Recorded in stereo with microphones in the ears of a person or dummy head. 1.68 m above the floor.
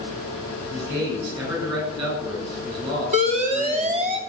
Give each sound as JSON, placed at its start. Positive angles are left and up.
{"t": 0.7, "sound": "a man speaking", "side_deg": -25, "distance_m": 9.5}
{"t": 3.1, "sound": "an alarm", "side_deg": -40, "distance_m": 2.5}